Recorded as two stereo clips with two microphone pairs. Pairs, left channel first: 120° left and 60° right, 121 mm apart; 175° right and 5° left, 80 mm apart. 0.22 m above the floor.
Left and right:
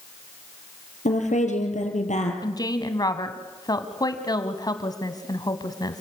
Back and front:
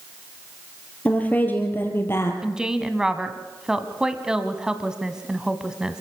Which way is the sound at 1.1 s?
115° left.